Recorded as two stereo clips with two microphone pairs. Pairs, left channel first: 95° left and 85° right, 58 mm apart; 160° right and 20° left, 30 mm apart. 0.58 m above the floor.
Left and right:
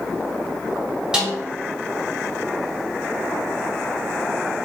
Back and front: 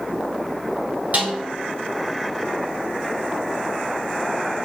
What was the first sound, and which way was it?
A snare drum, 10° right.